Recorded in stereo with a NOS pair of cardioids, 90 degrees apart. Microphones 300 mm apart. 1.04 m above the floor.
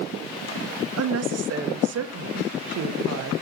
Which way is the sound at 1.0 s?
60° right.